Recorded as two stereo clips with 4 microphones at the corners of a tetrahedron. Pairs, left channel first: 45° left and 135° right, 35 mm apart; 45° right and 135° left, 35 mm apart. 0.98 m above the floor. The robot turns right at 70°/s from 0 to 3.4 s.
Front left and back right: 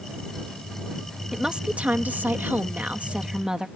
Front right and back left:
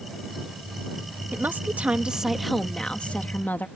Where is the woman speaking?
145° left; by 3.7 s 65° right.